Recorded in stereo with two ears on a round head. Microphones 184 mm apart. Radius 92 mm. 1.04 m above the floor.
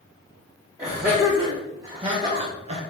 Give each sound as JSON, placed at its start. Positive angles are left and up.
{"t": 0.8, "sound": "laughter", "side_deg": -10, "distance_m": 1.6}